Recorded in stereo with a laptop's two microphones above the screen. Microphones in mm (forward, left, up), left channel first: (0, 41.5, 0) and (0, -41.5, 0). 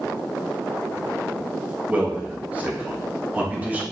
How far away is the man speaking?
About 0.8 m.